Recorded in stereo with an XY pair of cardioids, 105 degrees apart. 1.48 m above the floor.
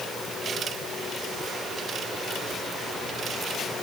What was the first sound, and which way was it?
Only background noise.